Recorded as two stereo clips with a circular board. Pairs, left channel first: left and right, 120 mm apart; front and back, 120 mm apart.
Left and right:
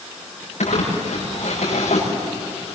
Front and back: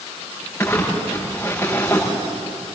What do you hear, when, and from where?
0.6 s crumpling: 70° left, 7.5 m